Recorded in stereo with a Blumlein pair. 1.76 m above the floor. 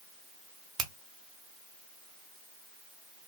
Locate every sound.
0.8 s a finger snap: 30° right, 0.9 m